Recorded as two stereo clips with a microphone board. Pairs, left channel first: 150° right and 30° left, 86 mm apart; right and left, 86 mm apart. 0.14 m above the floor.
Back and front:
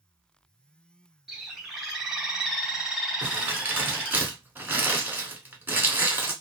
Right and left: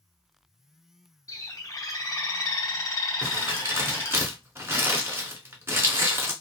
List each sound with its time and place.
1.3 s a bird: 50° right, 0.8 m
3.2 s crumpling: 70° left, 0.9 m